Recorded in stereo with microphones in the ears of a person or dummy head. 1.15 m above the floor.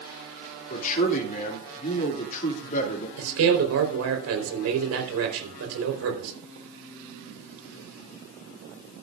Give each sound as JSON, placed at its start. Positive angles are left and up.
{"t": 0.7, "sound": "a man speaking", "side_deg": 50, "distance_m": 2.5}
{"t": 3.2, "sound": "a man speaking", "side_deg": -85, "distance_m": 4.0}